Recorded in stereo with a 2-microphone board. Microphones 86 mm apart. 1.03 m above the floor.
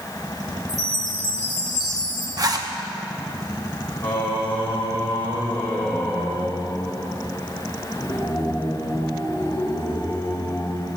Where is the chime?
40° left (ahead or behind), 3.5 m.